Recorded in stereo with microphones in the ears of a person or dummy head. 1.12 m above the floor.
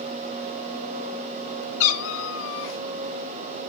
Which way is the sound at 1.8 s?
75° left (ahead or behind).